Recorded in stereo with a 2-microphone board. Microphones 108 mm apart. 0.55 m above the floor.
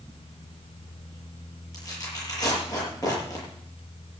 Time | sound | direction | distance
1.7 | tearing paper | 30° left (ahead or behind) | 8.5 m